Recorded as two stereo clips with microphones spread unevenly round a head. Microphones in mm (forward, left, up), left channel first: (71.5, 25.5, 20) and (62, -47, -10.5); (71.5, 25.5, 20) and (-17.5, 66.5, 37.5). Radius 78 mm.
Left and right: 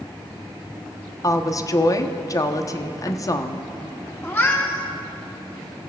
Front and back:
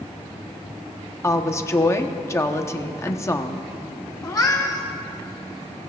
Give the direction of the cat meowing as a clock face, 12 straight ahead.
11 o'clock.